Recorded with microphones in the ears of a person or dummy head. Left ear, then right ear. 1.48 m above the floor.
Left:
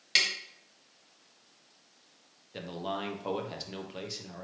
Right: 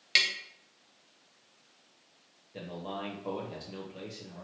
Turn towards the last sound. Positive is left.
turn(degrees=30)  # may be behind; listen again after turning